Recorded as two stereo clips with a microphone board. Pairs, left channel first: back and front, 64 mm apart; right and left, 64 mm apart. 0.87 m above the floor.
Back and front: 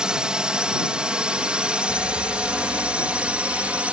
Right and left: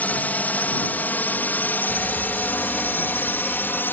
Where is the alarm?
Straight behind.